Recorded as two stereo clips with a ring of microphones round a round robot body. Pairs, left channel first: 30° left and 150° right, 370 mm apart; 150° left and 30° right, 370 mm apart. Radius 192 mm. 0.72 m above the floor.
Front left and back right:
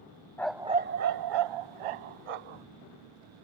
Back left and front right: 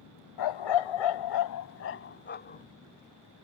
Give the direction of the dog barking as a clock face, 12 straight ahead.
8 o'clock.